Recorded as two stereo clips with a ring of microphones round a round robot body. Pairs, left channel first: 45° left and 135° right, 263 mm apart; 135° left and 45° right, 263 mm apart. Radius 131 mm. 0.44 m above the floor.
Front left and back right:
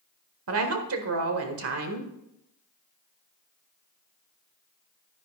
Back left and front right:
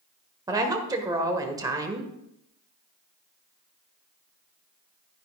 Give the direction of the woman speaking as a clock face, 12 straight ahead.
4 o'clock.